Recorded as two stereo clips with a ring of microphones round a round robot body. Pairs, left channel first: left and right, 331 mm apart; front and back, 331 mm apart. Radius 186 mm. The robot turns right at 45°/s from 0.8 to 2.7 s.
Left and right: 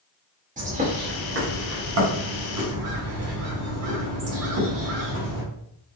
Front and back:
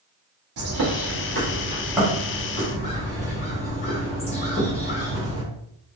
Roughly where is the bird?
Behind right.